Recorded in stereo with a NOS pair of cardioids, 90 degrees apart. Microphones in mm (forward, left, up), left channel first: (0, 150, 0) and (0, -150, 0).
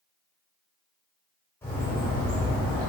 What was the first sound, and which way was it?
A bird, 5° left.